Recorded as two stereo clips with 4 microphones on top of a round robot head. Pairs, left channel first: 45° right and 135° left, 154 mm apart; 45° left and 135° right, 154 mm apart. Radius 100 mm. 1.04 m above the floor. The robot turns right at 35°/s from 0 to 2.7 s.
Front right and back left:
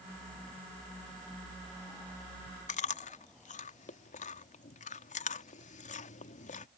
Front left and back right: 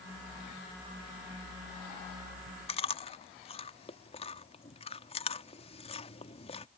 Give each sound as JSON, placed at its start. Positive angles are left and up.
{"t": 2.7, "sound": "chewing", "azimuth_deg": -5}